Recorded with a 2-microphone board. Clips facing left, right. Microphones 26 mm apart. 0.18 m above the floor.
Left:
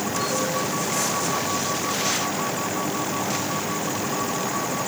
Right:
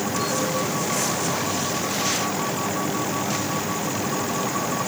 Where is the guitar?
I don't hear a guitar.